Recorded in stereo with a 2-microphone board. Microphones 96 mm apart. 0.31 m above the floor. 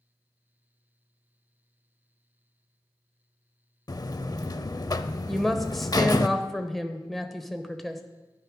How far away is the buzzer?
About 0.5 m.